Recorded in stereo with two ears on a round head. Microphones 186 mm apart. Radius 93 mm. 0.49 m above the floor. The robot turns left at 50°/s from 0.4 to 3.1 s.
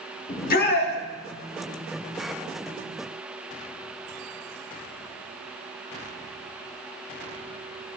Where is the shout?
40° left (ahead or behind), 1.1 m; by 0.9 s 50° left (ahead or behind), 1.1 m.